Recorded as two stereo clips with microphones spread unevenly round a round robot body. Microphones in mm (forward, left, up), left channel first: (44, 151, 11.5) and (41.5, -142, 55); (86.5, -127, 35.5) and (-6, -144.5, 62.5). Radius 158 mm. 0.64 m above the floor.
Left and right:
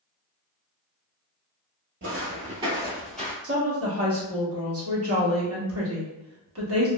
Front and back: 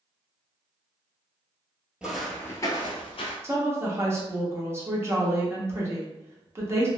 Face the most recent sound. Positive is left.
turn(degrees=-100)